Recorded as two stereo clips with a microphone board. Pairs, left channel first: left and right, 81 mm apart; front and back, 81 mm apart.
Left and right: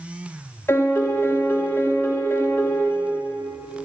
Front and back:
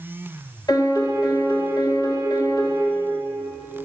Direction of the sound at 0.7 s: 30° left.